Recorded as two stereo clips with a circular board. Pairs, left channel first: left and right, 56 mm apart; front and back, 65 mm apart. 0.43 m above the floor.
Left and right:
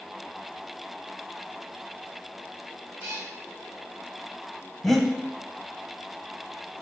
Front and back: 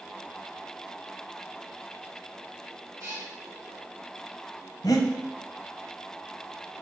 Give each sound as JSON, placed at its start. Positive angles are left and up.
{"t": 3.0, "sound": "a cat meowing", "azimuth_deg": -160, "distance_m": 1.8}
{"t": 4.8, "sound": "breathing", "azimuth_deg": 0, "distance_m": 0.5}